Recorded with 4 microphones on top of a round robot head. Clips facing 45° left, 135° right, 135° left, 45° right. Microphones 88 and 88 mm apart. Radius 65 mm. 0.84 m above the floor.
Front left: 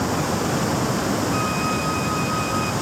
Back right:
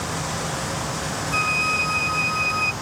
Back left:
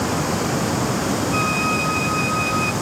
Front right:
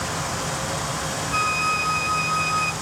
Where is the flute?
105° right.